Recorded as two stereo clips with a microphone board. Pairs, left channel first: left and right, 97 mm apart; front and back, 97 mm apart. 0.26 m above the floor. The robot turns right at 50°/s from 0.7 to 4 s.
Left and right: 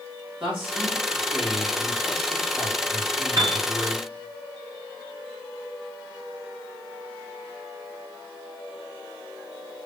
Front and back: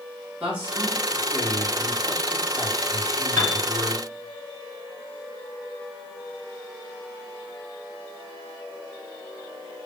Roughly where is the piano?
Ahead right.